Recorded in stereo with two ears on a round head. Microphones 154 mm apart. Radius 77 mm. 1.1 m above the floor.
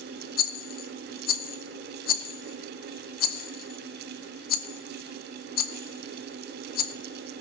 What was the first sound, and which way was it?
A rattle, 55° left (ahead or behind).